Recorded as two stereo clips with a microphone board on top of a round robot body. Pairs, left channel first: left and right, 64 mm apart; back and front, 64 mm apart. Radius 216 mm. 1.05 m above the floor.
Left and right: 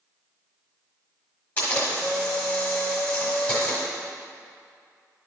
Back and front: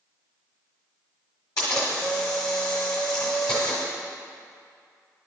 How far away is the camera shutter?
About 1.2 m.